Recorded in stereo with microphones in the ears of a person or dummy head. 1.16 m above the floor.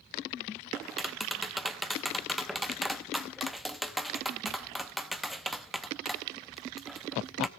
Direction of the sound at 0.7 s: Centre (ahead or behind).